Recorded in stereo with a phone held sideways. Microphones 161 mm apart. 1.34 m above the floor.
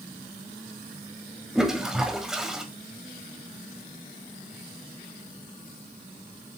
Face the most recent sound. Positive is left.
turn(degrees=-5)  # may be behind; listen again after turning